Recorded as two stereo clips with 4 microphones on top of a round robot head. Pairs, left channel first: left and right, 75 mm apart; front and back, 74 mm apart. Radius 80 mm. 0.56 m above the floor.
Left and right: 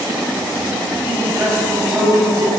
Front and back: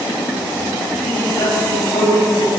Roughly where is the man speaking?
Ahead right.